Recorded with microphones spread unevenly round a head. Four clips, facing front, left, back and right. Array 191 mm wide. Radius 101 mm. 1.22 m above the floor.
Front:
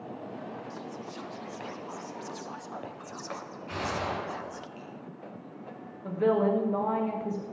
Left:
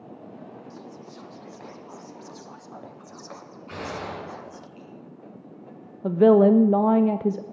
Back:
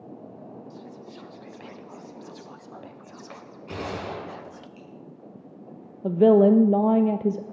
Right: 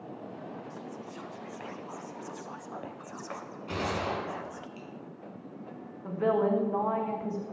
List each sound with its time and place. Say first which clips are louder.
0.7 s whispering: even, front 2 dB; 10° right, 0.7 m
3.7 s a gunshot: right 2 dB, even; 145° right, 5.5 m
6.0 s a woman speaking: left 11 dB, back 9 dB; 130° left, 0.5 m